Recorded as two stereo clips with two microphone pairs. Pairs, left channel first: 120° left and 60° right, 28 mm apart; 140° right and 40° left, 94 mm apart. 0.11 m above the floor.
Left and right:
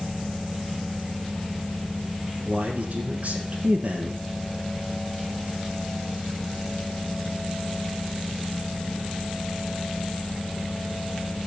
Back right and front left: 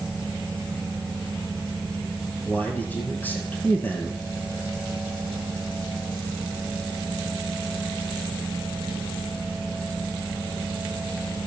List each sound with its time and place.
2.5 s a man speaking: 80° right, 1.7 m